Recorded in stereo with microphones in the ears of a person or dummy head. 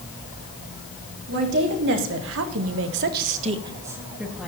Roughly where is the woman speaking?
Right.